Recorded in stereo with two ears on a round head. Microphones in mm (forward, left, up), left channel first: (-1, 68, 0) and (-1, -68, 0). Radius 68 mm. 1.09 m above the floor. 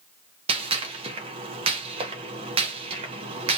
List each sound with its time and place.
0.5 s a gunshot: 35° right (ahead or behind), 0.6 m